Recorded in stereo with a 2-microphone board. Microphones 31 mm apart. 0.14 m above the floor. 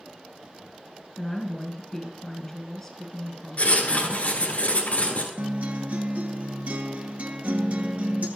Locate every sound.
1.2 s a woman speaking: 10° left (ahead or behind), 1.4 m
3.6 s writing: 50° left (ahead or behind), 1.3 m
5.4 s a guitar: 55° right (ahead or behind), 0.6 m